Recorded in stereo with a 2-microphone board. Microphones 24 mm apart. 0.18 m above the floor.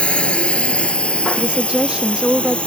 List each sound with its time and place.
0.0 s a drone: 50° left (ahead or behind)
1.4 s a woman speaking: 45° right (ahead or behind)